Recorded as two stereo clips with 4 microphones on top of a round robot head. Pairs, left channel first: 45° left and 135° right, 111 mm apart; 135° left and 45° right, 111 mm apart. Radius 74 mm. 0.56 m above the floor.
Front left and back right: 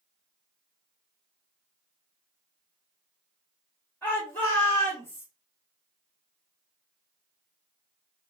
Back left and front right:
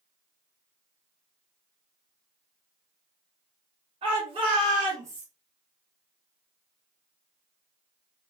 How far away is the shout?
About 1.6 m.